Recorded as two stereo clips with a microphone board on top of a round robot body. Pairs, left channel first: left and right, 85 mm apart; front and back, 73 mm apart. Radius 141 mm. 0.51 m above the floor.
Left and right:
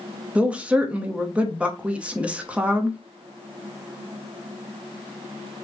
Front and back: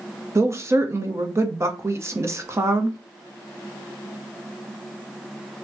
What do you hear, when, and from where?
0.3 s a woman speaking: 160° right, 1.0 m